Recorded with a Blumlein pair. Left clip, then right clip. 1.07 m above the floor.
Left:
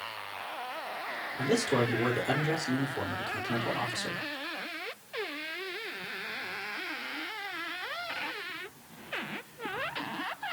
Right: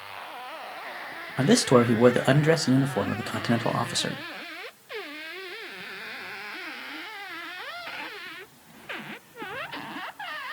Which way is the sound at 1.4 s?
50° right.